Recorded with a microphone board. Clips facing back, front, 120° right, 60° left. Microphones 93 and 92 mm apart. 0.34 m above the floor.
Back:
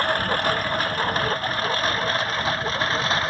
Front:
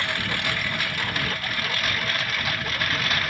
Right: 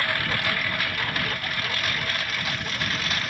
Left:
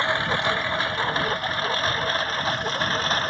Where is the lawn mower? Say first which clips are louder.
Back 6 dB, left 4 dB; 125° left; by 3.3 s 115° left.